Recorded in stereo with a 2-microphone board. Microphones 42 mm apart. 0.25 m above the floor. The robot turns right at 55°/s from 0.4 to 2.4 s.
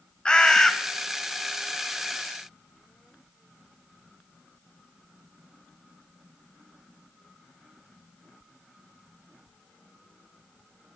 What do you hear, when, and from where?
0.2 s a bird: 20° left (ahead or behind), 0.6 m; by 0.7 s 10° left (ahead or behind), 0.6 m